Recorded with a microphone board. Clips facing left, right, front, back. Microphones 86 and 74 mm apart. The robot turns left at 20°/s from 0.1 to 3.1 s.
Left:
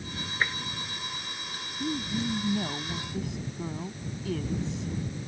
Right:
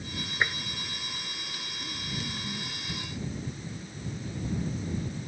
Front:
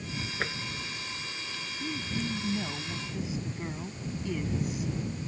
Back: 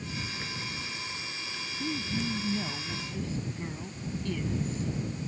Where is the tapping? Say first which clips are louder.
Right 1 dB, front 6 dB; 10° right; by 0.6 s 15° right.